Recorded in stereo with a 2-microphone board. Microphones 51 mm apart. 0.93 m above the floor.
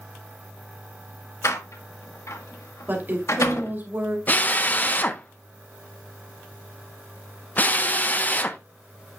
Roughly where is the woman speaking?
Right.